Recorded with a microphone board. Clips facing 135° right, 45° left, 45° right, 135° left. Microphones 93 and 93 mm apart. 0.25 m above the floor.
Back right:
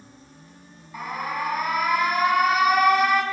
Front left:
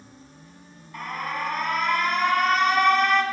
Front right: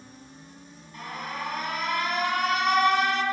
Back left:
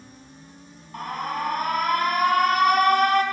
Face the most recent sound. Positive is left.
turn(degrees=145)